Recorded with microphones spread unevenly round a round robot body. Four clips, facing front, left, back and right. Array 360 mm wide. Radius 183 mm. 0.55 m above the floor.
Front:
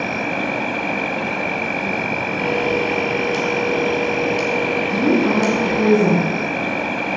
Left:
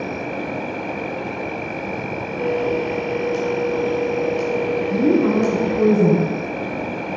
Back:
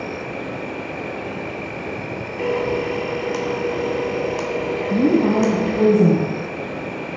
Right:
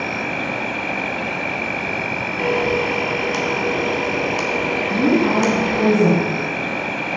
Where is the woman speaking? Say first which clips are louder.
Even, back 2 dB; 175° right, 4 m.